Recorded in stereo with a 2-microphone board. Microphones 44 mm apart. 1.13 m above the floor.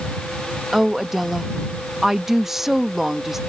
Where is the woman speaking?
5° right (ahead or behind).